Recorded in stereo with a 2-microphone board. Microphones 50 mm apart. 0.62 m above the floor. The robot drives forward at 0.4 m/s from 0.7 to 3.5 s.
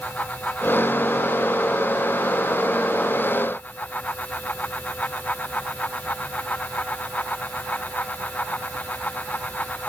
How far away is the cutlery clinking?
No cutlery clinking in this recording.